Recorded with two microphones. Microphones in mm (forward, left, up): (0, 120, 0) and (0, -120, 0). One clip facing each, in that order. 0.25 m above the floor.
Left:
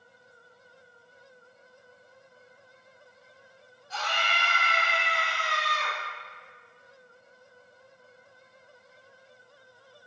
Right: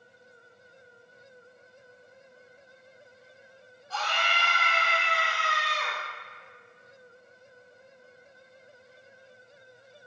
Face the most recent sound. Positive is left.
turn(degrees=-15)  # may be behind; listen again after turning